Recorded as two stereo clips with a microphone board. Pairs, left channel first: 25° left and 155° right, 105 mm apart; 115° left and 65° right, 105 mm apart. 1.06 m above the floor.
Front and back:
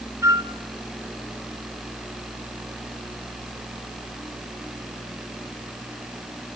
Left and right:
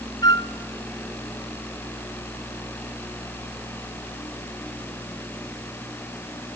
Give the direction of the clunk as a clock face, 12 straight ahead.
I don't hear a clunk.